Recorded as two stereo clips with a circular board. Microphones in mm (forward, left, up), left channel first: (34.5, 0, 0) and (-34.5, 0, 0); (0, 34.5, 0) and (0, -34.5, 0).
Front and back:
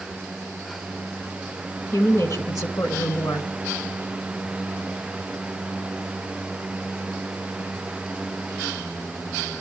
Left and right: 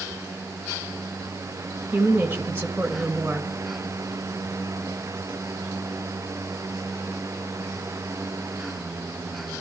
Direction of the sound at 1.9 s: 30° right.